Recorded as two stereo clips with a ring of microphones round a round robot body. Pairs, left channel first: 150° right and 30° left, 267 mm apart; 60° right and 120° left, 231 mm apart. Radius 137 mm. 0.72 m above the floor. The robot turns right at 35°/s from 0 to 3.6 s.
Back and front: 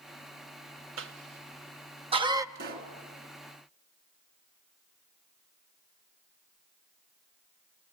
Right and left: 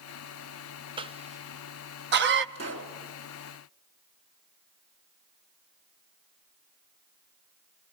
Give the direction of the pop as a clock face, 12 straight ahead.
9 o'clock.